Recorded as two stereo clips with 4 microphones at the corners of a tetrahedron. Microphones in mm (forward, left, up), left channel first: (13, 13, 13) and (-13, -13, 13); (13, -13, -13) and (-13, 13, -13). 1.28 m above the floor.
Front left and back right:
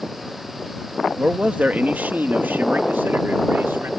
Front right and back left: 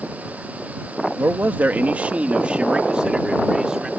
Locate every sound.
1.2 s a man speaking: 165° left; by 3.9 s 150° right